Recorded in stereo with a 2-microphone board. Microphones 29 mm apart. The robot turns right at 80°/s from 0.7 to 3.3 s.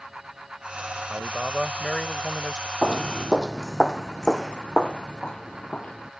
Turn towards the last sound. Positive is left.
turn(degrees=35)  # may be behind; listen again after turning